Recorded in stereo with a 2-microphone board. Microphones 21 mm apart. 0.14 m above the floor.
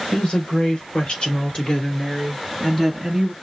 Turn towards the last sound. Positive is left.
turn(degrees=-5)  # may be behind; listen again after turning